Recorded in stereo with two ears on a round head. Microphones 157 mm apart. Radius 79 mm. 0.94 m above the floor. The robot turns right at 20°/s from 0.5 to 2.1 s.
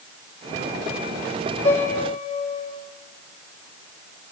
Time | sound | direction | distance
1.6 | a piano | 35° left (ahead or behind) | 1.9 m